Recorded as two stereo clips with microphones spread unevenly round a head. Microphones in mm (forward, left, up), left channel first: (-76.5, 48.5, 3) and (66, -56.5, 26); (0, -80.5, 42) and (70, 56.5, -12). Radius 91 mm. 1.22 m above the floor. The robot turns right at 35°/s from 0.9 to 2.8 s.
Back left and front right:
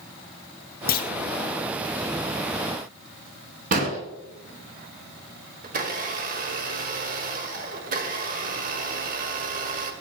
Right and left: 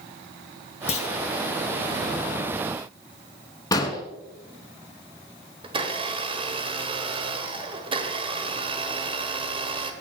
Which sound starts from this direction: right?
An explosion, at 3.7 s.